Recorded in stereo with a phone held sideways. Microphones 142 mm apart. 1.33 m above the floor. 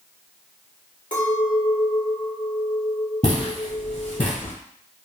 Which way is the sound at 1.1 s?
65° left (ahead or behind).